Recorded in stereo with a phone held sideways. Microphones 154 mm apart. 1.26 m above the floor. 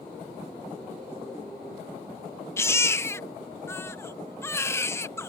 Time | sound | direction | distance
2.6 | a baby crying | 15° left (ahead or behind) | ?